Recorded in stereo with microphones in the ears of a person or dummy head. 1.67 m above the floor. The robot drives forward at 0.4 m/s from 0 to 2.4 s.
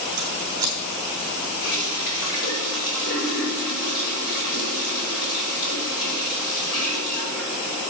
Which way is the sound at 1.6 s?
65° left (ahead or behind).